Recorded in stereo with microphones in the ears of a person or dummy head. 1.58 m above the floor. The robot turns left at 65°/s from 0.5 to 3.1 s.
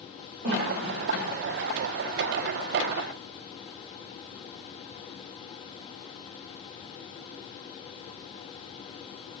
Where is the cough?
55° right (ahead or behind), 4.5 m; by 1.3 s 5° right (ahead or behind), 4.5 m.